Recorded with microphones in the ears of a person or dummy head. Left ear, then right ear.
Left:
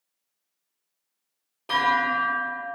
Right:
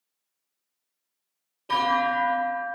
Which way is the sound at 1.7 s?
30° left (ahead or behind).